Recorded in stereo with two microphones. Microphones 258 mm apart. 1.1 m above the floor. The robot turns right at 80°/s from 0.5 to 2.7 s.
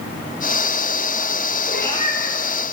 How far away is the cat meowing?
About 7 m.